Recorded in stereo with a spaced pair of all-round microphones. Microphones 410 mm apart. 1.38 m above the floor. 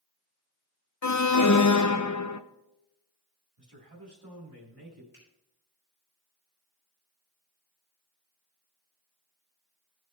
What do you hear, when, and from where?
1.0 s an alarm: 45° left (ahead or behind), 0.7 m
3.6 s a man speaking: 65° right (ahead or behind), 4 m
5.1 s a finger snap: 25° left (ahead or behind), 6.5 m